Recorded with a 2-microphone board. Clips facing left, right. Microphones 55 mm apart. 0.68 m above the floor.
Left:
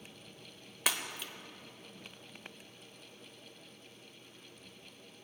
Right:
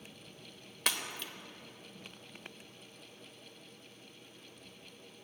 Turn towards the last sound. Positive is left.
turn(degrees=5)  # may be behind; listen again after turning